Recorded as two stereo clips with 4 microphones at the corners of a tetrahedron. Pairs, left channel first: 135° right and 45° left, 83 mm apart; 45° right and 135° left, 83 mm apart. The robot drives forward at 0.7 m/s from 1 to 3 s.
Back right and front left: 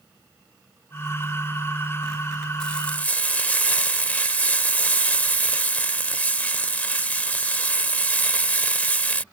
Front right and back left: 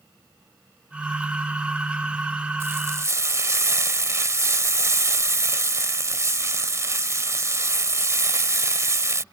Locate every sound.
2.6 s frying: 155° left; by 9.2 s 160° left